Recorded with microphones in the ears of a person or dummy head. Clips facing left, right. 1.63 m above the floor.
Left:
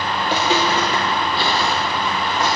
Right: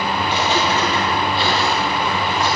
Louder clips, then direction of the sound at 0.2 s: Left 2 dB; 25° left (ahead or behind).